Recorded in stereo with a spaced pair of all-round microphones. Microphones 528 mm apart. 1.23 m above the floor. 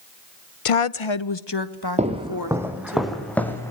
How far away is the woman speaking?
About 0.6 m.